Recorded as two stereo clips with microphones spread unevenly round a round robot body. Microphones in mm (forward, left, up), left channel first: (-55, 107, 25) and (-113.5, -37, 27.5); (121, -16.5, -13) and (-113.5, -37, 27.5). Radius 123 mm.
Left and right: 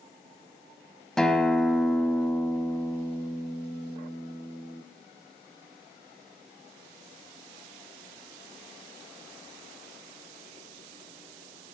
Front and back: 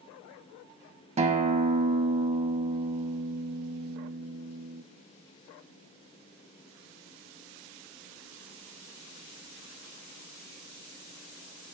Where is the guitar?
155° left, 0.7 m.